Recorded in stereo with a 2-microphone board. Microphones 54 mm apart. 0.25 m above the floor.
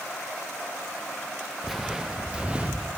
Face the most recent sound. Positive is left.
turn(degrees=-20)  # may be behind; listen again after turning